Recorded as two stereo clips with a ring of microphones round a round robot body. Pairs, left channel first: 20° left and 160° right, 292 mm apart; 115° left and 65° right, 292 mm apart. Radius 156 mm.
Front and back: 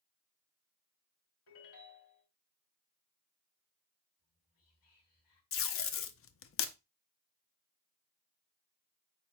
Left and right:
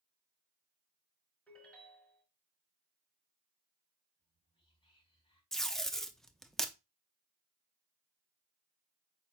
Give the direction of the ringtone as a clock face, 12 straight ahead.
11 o'clock.